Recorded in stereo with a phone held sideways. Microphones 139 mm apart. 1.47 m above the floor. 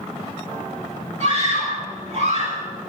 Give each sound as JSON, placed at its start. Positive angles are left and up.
{"t": 1.2, "sound": "a scream", "side_deg": -55, "distance_m": 9.0}